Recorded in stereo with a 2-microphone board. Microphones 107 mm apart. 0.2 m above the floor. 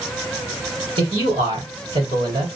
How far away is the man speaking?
About 3.5 m.